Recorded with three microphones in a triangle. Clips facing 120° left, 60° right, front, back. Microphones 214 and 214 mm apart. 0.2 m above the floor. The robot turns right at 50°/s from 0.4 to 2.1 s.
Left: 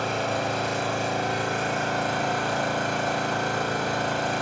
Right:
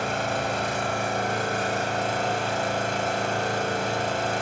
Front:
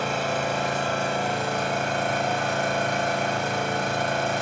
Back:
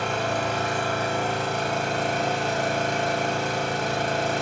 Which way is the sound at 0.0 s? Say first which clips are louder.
Left 1 dB, even; 85° right.